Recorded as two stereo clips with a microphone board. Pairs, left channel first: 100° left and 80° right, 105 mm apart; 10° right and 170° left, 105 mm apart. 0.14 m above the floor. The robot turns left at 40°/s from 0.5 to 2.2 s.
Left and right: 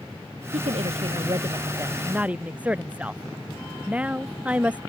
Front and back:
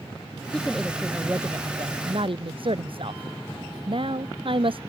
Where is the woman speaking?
90° right; by 4.8 s 155° right.